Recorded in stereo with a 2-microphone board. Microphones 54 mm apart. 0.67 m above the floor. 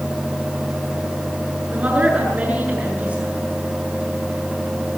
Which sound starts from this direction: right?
A woman speaking, at 1.7 s.